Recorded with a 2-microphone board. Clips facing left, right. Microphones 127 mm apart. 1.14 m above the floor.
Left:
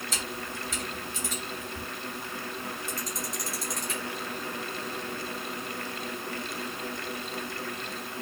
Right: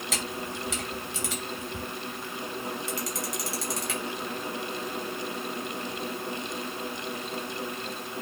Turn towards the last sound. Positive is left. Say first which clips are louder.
# right 5 dB
turn(degrees=-75)  # may be behind; listen again after turning